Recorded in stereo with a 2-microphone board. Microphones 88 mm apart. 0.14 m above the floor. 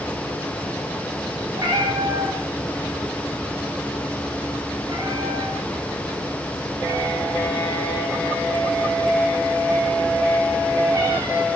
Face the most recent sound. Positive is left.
turn(degrees=-40)  # may be behind; listen again after turning